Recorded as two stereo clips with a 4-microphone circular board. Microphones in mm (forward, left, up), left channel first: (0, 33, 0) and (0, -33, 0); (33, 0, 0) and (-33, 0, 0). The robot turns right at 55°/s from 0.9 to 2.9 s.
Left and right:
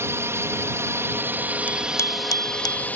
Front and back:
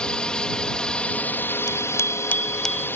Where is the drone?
70° right; by 3.0 s 35° left.